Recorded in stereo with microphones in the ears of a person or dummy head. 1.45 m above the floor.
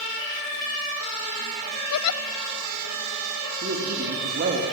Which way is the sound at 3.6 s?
45° right (ahead or behind).